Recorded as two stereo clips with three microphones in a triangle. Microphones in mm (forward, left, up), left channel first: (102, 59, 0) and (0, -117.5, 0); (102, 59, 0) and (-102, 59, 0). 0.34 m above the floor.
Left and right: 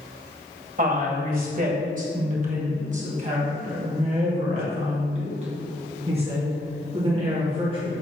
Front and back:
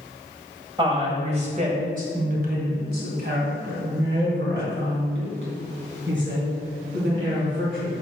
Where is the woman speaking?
125° right, 1.8 m; by 7.9 s straight behind, 5 m.